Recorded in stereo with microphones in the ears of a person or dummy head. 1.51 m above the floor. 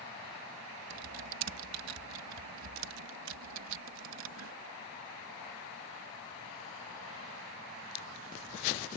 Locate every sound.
0.9 s typing on a keyboard: 70° right (ahead or behind)